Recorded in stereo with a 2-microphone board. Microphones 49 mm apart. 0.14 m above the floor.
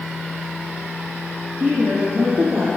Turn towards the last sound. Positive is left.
turn(degrees=-45)  # may be behind; listen again after turning